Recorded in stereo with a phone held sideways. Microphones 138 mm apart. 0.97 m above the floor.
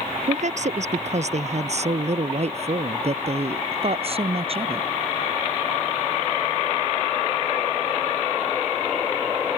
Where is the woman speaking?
60° right (ahead or behind); by 4.9 s 45° right (ahead or behind).